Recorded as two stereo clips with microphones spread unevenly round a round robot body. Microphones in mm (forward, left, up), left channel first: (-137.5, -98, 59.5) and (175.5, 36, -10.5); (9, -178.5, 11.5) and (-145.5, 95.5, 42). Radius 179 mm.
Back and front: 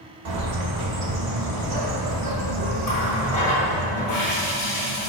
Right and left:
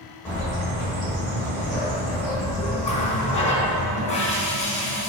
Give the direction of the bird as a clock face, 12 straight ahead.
11 o'clock.